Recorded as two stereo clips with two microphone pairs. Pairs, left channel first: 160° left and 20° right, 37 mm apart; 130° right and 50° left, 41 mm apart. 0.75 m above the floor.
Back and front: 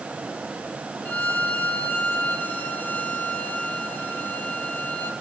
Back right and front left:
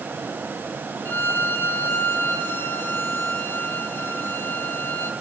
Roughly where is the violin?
Behind.